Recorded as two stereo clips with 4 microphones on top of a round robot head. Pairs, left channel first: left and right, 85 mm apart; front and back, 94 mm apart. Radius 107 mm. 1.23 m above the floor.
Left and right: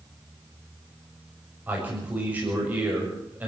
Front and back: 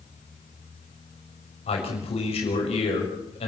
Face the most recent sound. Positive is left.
turn(degrees=-15)